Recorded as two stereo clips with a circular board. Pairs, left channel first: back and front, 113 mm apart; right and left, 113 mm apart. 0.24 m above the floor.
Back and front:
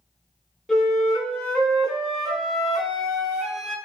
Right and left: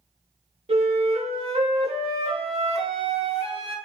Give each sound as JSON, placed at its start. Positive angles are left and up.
{"t": 0.7, "sound": "a flute", "azimuth_deg": 95, "distance_m": 0.8}